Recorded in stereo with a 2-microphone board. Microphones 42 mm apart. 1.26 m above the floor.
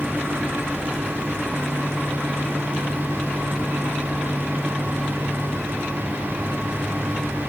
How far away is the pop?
I don't hear a pop.